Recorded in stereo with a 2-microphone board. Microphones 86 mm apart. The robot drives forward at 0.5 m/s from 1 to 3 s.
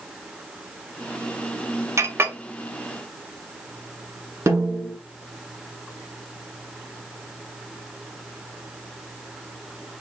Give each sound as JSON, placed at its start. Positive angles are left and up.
{"t": 2.0, "sound": "a clink", "side_deg": -30, "distance_m": 0.5}
{"t": 4.5, "sound": "a snare drum", "side_deg": -40, "distance_m": 1.7}